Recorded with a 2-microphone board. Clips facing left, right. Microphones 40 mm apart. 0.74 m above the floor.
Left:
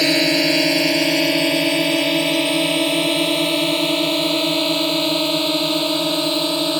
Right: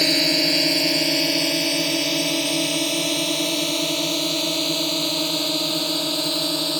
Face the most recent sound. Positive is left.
turn(degrees=30)  # may be behind; listen again after turning